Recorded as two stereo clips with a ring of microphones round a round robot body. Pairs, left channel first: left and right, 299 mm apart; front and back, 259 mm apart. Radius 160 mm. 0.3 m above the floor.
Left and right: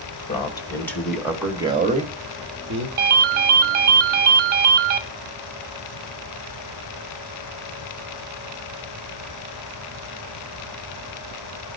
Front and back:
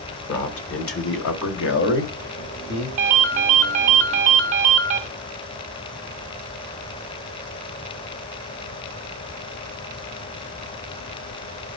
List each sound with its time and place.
0.3 s a man speaking: 20° left, 1.6 m; by 2.9 s 50° right, 1.6 m
3.0 s a ringtone: 135° right, 0.9 m